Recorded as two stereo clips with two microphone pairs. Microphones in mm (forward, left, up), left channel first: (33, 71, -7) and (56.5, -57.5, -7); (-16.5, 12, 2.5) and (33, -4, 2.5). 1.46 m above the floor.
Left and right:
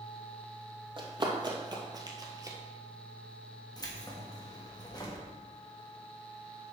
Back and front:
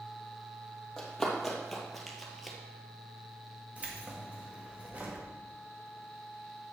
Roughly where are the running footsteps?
Behind right.